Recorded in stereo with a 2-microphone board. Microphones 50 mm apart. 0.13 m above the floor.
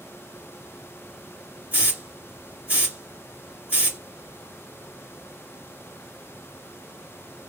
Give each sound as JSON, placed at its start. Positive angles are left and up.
{"t": 1.7, "sound": "a hiss", "side_deg": -30, "distance_m": 2.5}